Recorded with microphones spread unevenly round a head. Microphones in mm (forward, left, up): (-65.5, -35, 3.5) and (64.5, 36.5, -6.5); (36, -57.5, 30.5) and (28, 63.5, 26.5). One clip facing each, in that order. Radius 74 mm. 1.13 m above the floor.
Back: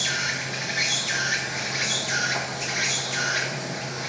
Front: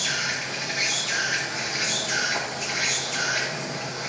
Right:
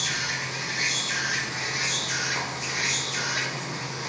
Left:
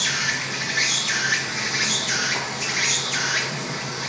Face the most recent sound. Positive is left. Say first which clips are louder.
# even, left 4 dB
turn(degrees=125)